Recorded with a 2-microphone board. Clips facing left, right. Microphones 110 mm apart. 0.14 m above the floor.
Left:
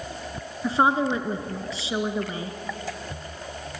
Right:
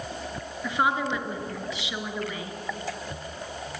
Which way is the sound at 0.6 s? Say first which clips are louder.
Left 4 dB; 35° left (ahead or behind).